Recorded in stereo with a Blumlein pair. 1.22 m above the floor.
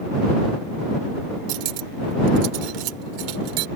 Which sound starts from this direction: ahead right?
Cutlery clinking, at 1.5 s.